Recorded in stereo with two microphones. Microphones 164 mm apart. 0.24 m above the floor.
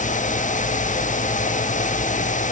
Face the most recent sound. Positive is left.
No sound to turn to.